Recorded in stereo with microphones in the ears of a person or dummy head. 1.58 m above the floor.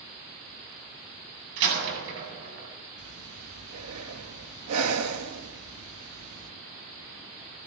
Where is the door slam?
65° right (ahead or behind), 7.5 m.